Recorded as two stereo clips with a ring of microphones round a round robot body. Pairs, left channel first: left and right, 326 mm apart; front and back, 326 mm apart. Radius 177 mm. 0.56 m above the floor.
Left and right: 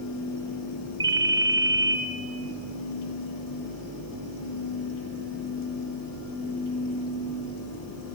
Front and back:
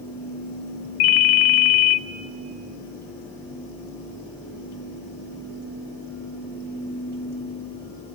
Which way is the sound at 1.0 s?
10° right.